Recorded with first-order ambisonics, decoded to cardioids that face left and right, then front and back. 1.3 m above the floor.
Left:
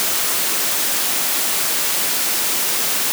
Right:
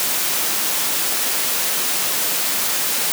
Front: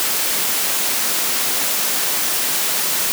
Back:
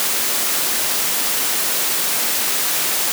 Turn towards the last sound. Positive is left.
No sound to turn to.